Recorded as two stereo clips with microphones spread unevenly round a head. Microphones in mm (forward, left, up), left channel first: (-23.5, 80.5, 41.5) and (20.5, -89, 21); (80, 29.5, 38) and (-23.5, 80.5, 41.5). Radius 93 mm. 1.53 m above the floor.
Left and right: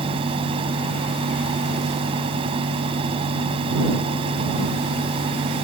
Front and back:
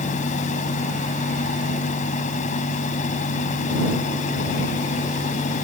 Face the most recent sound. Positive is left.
turn(degrees=-15)